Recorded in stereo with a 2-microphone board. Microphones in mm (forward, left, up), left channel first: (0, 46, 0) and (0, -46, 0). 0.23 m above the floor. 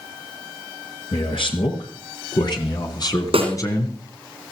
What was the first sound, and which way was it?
A man speaking, 70° left (ahead or behind).